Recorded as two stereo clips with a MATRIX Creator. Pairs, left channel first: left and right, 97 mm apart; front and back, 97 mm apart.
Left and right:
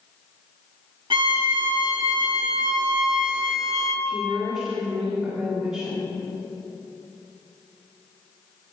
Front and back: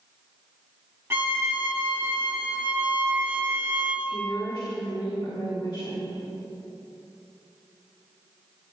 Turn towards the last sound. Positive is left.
turn(degrees=-5)